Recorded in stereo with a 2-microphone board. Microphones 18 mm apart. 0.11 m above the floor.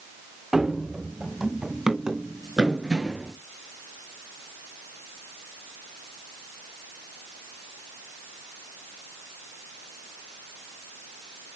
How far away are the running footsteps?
About 0.6 m.